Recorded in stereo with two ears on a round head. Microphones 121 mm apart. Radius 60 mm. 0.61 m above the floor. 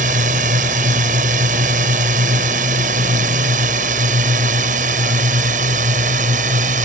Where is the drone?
60° right (ahead or behind).